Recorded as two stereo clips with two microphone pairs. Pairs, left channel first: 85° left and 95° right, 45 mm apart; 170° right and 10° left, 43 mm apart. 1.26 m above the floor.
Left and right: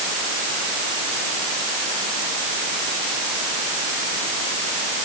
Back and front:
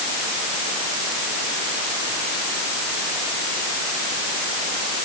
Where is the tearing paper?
No tearing paper in this recording.